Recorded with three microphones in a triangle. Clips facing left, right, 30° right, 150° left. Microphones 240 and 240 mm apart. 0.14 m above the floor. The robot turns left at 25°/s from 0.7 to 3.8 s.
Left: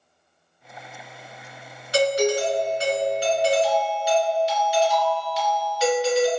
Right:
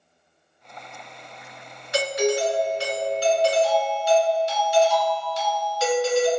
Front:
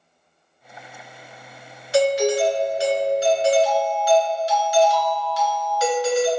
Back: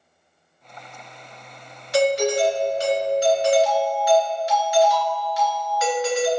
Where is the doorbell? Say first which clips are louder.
Left 2 dB, front 1 dB; 60° left, 2.0 m; by 6.3 s 15° left, 2.0 m.